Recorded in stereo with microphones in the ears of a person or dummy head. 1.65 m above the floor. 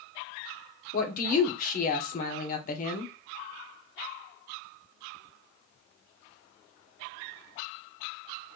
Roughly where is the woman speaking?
Left.